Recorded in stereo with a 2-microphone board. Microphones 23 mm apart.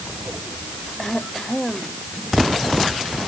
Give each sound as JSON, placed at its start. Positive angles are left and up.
{"t": 1.0, "sound": "throat clearing", "side_deg": 25}